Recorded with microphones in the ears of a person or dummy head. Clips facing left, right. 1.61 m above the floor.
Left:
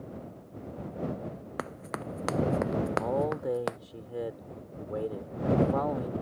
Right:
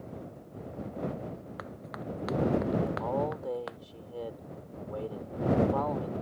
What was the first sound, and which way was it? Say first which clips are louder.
Running footsteps: left 3 dB; 60° left (ahead or behind).